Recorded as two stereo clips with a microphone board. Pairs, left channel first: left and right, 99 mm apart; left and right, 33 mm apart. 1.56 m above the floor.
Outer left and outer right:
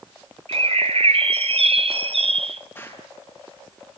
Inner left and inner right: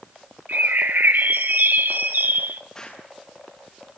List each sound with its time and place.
0.5 s a bird: 75° right (ahead or behind), 0.8 m
2.8 s an explosion: 25° left (ahead or behind), 7.5 m